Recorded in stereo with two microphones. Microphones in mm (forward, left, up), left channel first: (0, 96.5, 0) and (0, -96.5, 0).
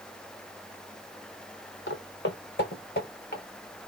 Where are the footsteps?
75° left (ahead or behind), 0.8 m; by 3.4 s 55° left (ahead or behind), 1.7 m.